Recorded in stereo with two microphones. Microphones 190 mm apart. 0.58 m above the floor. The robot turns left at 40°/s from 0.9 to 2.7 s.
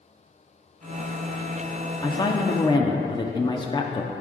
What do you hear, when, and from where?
2.0 s a woman speaking: 20° left (ahead or behind), 0.6 m; by 4.1 s 25° left (ahead or behind), 0.6 m